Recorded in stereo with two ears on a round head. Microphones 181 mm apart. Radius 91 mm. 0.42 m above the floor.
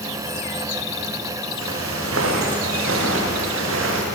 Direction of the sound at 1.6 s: 85° right.